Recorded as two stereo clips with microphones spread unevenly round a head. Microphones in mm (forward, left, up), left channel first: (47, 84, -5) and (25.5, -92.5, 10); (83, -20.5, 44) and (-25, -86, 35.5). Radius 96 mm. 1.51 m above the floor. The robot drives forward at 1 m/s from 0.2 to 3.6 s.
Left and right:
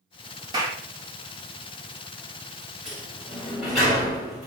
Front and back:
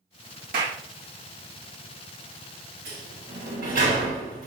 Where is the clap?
170° right, 2.5 m.